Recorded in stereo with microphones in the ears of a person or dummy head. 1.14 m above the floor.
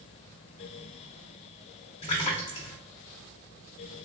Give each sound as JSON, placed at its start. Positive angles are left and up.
{"t": 2.0, "sound": "a splash", "side_deg": 35, "distance_m": 0.7}